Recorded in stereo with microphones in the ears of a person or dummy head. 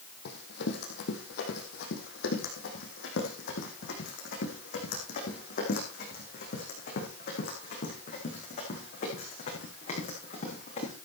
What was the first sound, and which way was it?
Running footsteps, 65° left (ahead or behind).